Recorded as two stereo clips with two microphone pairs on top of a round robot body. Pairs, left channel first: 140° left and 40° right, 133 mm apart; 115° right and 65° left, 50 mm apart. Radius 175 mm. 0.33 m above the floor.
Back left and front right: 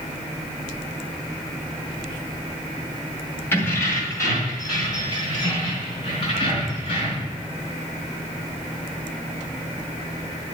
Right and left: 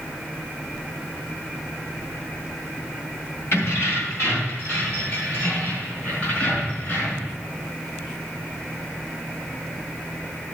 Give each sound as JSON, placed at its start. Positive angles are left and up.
{"t": 3.5, "sound": "keys jangling", "azimuth_deg": -150, "distance_m": 2.0}